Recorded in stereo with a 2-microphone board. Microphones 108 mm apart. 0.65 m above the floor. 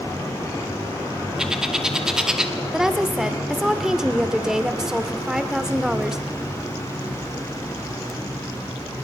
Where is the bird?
5° right (ahead or behind), 1.5 m.